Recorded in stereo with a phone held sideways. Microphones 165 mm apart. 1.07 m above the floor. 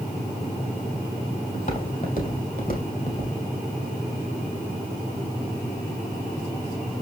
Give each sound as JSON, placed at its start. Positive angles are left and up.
{"t": 1.5, "sound": "footsteps", "side_deg": 50, "distance_m": 2.5}